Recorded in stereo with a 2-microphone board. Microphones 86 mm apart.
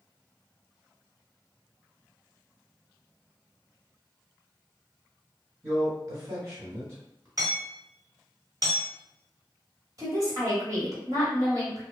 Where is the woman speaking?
45° right (ahead or behind), 1.4 m.